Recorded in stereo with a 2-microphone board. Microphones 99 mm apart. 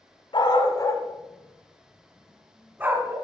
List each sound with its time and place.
0.3 s a dog barking: 50° left (ahead or behind), 1.8 m; by 3.1 s 20° right (ahead or behind), 2.5 m